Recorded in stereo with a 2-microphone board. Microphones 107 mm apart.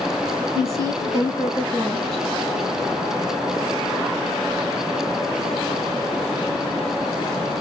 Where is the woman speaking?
25° right (ahead or behind), 1.3 m; by 2.2 s 45° right (ahead or behind), 3.5 m.